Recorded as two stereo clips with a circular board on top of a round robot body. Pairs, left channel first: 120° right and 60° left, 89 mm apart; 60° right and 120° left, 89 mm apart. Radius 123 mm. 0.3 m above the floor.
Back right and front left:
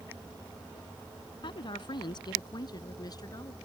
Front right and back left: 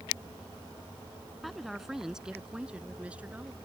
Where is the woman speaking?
150° right; by 3.5 s 165° right.